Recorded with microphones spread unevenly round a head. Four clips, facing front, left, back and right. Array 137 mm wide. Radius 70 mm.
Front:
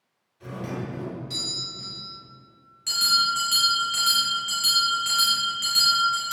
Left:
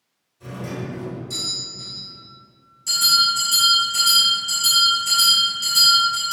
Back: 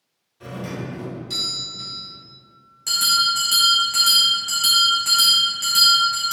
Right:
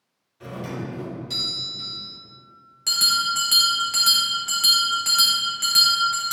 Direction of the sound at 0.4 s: 135° right.